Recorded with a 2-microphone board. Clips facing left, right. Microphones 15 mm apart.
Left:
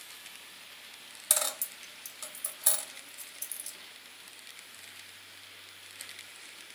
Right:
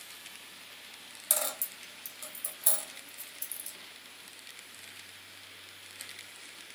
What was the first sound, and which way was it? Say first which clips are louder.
A dropped coin: left 2 dB; 25° left (ahead or behind).